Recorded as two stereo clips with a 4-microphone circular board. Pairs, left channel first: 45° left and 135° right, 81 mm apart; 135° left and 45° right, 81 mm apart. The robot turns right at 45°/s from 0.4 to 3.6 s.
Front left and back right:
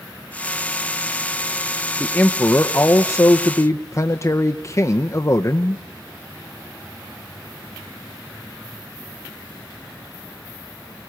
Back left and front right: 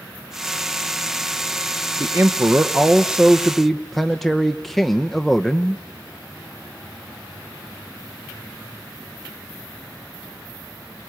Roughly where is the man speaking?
Ahead right.